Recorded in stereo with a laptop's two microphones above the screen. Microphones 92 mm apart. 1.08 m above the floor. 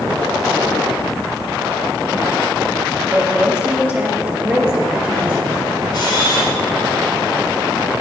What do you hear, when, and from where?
3.1 s a woman speaking: 15° right (ahead or behind), 2.5 m; by 5.6 s 10° right (ahead or behind), 4.5 m
5.9 s a camera shutter: 55° left (ahead or behind), 3 m